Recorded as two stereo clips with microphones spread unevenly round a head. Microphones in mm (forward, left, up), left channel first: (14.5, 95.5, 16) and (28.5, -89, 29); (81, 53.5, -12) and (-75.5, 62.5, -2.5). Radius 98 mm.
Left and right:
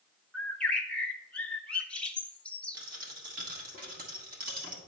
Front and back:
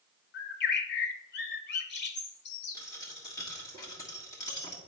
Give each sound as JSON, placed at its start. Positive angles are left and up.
{"t": 0.3, "sound": "a bird", "azimuth_deg": 10, "distance_m": 0.7}
{"t": 2.7, "sound": "a dropped coin", "azimuth_deg": -70, "distance_m": 1.4}